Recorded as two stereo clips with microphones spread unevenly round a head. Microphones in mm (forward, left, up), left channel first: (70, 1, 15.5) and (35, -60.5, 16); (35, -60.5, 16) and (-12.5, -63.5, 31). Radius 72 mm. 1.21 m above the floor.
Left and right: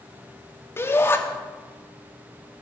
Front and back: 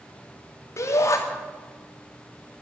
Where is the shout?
5° left, 2.5 m.